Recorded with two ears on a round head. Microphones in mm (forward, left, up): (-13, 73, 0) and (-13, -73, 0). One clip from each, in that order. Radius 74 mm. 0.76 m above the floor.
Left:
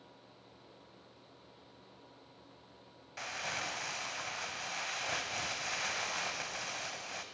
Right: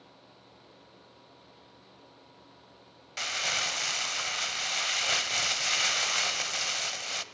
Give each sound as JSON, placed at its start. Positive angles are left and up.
{"t": 3.2, "sound": "crumpling", "side_deg": -60, "distance_m": 1.1}